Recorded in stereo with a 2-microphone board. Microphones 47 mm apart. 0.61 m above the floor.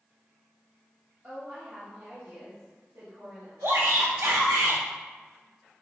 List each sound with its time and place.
1.2 s a woman speaking: 30° right (ahead or behind), 3 m; by 3.5 s 55° right (ahead or behind), 4.5 m
3.6 s a shout: 60° right (ahead or behind), 2.5 m